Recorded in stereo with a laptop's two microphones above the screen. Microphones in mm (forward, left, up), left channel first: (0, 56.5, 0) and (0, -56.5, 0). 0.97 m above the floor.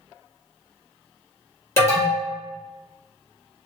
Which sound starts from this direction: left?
An alarm, at 1.8 s.